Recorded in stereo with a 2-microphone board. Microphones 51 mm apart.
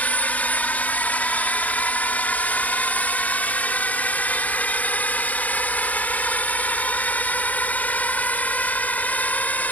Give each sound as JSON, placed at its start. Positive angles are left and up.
{"t": 0.0, "sound": "a drone", "side_deg": 30}